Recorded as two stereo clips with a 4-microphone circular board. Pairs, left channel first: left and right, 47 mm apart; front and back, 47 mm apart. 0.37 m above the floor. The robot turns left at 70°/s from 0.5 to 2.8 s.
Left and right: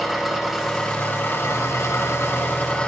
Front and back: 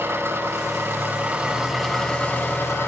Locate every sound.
0.0 s an engine running: 175° right, 6.5 m; by 2.9 s 25° left, 6.5 m